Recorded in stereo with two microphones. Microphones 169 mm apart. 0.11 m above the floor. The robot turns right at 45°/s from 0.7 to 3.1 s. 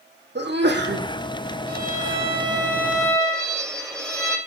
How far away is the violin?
About 4 m.